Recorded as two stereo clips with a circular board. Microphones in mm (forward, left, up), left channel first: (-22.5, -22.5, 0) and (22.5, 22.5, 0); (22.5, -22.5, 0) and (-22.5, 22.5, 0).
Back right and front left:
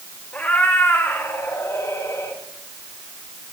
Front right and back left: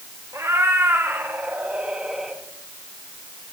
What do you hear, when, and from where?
0.3 s a cat meowing: 165° left, 1.8 m; by 2.4 s 140° right, 1.5 m